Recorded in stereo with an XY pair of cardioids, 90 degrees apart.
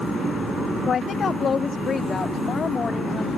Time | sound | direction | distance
0.9 | a woman speaking | 60° left | ?